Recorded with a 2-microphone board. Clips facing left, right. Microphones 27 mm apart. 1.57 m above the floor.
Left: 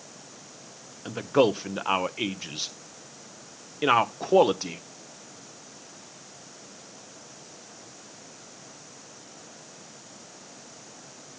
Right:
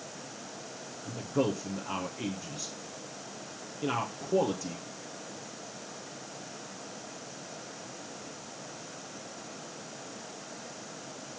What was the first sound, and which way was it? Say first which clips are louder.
A man speaking: left 8 dB; 60° left (ahead or behind).